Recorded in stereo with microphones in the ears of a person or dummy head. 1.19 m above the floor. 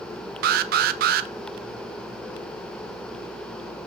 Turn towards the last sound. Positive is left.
turn(degrees=-45)  # may be behind; listen again after turning